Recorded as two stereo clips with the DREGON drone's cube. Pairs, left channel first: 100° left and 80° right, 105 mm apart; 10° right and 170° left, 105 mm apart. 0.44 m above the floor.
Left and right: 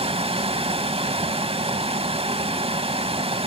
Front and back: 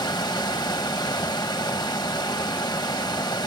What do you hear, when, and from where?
0.0 s running water: 55° right, 1.4 m